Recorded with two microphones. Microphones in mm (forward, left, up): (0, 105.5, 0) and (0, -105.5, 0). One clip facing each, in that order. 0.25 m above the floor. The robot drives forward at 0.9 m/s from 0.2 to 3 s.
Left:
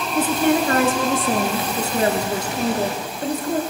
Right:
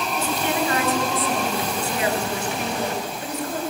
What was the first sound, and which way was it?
A woman speaking, 55° left (ahead or behind).